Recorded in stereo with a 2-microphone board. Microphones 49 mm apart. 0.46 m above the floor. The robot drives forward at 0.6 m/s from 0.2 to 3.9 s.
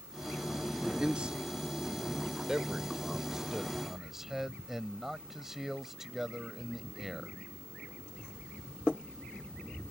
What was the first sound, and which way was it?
A man speaking, 20° right (ahead or behind).